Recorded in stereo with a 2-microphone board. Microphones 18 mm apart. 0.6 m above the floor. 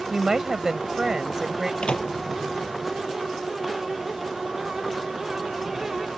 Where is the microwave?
80° left.